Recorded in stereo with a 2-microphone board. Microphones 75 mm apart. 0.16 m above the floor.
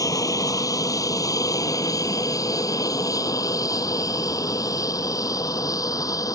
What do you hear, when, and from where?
0.0 s an aircraft: 45° left (ahead or behind); by 6.4 s 50° left (ahead or behind)